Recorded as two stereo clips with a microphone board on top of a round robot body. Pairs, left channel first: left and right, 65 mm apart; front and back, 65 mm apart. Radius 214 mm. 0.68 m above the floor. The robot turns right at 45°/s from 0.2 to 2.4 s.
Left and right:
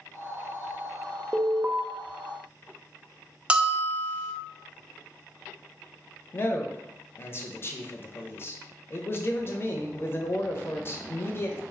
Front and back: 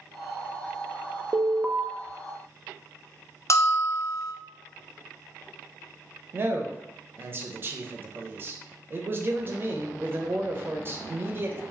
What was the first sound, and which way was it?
An alarm, 130° right.